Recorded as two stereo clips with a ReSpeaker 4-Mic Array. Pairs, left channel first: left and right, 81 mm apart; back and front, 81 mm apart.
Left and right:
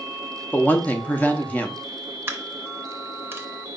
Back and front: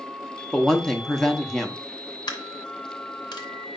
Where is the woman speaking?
105° left, 0.7 m.